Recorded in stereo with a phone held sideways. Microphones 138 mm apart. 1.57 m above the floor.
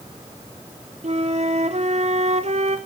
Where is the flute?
55° right (ahead or behind), 0.8 m.